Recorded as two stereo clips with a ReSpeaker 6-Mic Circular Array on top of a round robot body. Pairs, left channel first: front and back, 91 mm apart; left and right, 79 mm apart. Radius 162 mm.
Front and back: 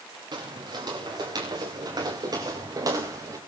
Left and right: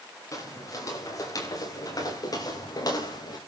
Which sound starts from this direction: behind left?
Footsteps, at 0.3 s.